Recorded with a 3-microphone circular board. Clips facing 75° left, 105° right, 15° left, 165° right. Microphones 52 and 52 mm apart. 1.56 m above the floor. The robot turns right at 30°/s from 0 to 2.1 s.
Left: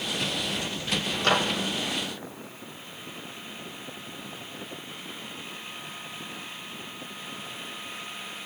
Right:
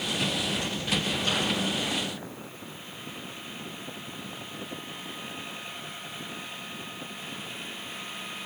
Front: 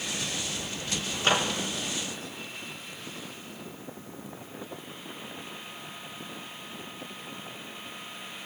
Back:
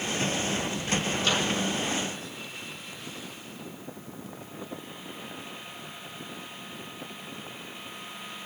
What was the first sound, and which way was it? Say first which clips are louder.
A microwave: left 4 dB, front 5 dB; 65° left.